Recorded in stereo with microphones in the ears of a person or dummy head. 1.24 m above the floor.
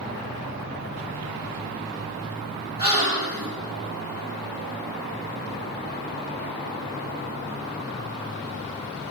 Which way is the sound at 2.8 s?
15° right (ahead or behind).